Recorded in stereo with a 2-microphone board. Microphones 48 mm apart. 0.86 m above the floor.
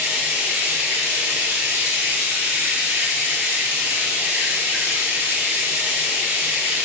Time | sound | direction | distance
0.0 | running water | 50° right (ahead or behind) | 1.3 m